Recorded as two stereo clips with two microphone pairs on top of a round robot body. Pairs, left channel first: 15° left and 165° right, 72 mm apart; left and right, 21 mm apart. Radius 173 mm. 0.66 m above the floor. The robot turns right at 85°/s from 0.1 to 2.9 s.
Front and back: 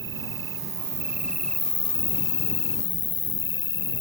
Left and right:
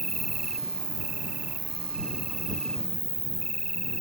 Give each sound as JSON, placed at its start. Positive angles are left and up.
{"t": 0.0, "sound": "an insect", "azimuth_deg": 170}